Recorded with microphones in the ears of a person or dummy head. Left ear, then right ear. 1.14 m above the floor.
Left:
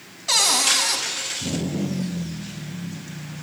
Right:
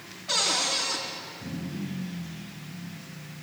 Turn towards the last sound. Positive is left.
turn(degrees=75)  # may be behind; listen again after turning